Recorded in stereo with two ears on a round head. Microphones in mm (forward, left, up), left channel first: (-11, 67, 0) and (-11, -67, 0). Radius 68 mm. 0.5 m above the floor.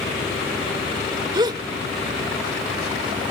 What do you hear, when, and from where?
1.3 s a gasp: 30° right (ahead or behind)